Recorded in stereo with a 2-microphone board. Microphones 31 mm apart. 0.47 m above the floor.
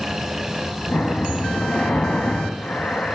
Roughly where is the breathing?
Left.